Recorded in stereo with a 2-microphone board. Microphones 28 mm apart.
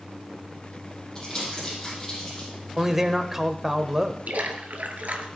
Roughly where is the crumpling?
Centre.